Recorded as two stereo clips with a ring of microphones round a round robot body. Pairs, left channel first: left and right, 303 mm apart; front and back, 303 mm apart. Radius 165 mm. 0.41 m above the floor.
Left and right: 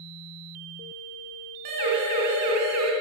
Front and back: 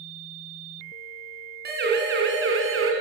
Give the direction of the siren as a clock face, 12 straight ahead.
4 o'clock.